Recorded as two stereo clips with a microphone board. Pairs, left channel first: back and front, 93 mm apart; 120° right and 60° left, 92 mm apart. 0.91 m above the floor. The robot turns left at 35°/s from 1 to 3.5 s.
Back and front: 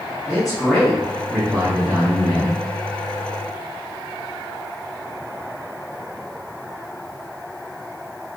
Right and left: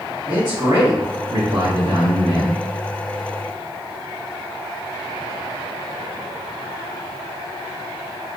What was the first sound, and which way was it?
A man speaking, 95° left.